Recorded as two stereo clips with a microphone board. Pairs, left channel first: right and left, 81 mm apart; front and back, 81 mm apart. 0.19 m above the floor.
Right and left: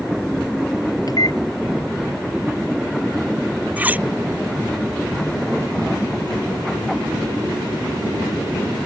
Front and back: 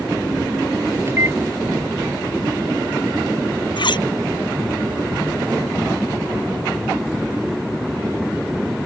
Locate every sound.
1.1 s a microwave: 125° right
3.8 s cutlery clinking: 20° left